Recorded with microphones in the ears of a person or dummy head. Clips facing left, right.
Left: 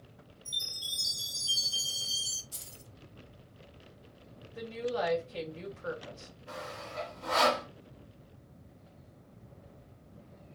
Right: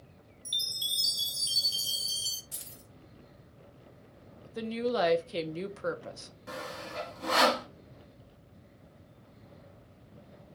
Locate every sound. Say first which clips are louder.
0.5 s a chime: right 1 dB; 40° right (ahead or behind), 1.1 m
2.5 s keys jangling: right 1 dB; 25° right (ahead or behind), 1.3 m
4.5 s a woman speaking: right 4 dB; 55° right (ahead or behind), 0.6 m
6.5 s sawing: right 3 dB; 65° right (ahead or behind), 1.5 m